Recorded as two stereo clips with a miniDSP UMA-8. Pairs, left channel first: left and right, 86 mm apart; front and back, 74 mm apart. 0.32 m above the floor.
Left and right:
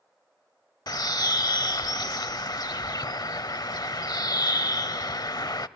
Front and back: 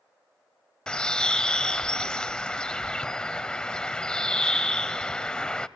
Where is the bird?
75° left, 0.6 m.